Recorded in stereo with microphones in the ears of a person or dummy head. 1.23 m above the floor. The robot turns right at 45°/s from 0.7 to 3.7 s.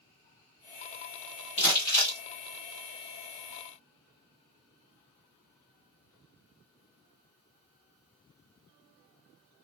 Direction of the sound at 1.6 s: 30° left (ahead or behind).